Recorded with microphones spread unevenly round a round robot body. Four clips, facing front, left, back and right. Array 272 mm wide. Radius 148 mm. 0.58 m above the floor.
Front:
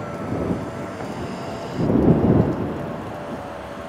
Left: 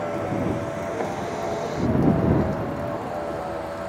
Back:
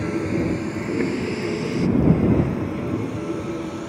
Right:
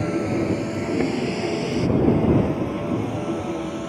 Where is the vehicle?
125° right.